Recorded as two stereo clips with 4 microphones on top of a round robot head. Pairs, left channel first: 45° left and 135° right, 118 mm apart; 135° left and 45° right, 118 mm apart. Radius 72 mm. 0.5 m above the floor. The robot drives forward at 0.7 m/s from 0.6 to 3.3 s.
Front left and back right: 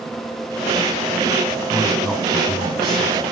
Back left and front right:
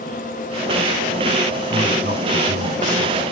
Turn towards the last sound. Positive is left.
turn(degrees=-45)